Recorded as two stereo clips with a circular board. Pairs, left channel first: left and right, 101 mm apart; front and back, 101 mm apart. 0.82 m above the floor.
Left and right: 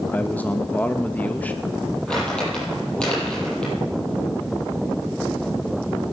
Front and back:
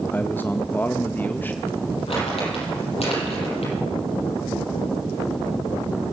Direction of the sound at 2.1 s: 10° left.